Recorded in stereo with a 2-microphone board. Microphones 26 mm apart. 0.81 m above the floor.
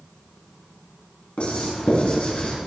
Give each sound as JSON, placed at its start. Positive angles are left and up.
{"t": 1.4, "sound": "writing", "side_deg": 55, "distance_m": 4.5}